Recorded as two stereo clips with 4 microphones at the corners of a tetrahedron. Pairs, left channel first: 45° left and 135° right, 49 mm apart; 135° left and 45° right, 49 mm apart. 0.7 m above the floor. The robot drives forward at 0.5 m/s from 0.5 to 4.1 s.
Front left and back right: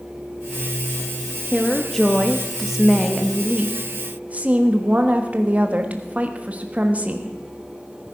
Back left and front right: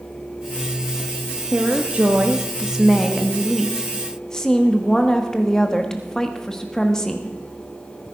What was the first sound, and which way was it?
A woman speaking, 20° right.